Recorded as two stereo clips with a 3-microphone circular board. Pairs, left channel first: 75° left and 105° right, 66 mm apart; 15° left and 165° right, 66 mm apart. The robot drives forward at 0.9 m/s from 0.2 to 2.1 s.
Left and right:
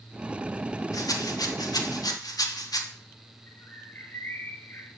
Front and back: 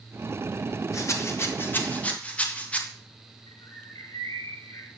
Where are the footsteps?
I don't hear footsteps.